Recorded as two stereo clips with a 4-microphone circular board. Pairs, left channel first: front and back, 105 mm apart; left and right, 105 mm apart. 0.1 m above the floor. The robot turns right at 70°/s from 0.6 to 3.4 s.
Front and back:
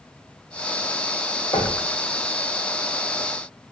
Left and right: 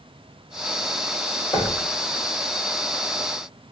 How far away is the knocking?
About 3 m.